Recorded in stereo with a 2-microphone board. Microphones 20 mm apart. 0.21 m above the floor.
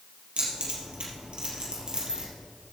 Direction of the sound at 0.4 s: 65° right (ahead or behind).